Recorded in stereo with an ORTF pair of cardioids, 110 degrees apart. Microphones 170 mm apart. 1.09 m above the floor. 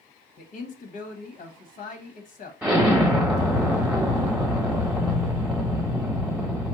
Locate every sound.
0.4 s a man speaking: 55° left, 0.8 m
2.6 s an explosion: 5° right, 1.0 m